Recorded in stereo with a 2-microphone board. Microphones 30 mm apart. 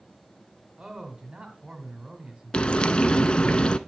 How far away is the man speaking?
About 1.8 m.